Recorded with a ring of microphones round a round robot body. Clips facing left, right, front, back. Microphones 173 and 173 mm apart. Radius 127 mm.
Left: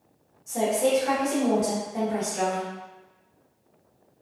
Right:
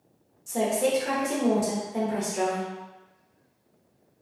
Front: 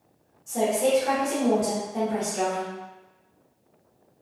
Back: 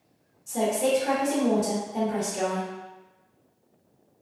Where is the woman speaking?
105° right, 0.9 m.